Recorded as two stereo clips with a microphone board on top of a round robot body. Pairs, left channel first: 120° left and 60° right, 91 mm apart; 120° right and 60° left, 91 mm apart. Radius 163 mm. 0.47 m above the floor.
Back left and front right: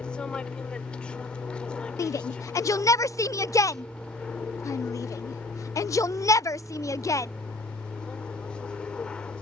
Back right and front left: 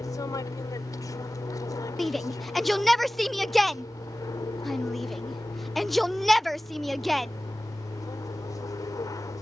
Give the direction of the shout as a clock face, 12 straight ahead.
7 o'clock.